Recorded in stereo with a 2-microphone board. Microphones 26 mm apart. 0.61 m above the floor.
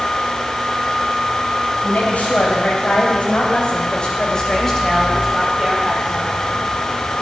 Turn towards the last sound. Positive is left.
turn(degrees=-10)  # may be behind; listen again after turning